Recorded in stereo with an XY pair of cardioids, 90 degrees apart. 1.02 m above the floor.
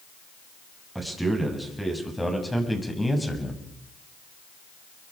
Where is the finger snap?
No finger snap in this recording.